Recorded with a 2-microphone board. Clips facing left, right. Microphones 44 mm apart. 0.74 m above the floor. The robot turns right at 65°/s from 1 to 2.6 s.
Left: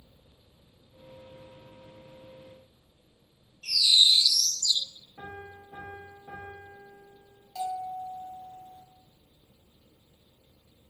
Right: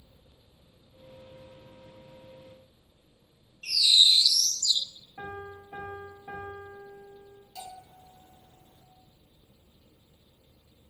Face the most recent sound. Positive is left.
turn(degrees=70)  # may be behind; listen again after turning